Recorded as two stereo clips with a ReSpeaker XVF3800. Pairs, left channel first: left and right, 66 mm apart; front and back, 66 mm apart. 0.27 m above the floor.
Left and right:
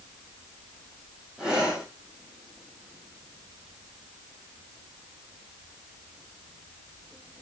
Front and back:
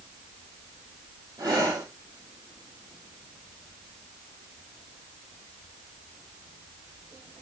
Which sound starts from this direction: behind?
Breathing, at 1.4 s.